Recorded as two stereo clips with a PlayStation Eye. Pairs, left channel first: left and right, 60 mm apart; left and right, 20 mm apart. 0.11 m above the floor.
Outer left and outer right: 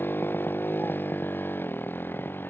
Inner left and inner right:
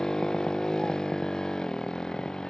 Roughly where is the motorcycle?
Left.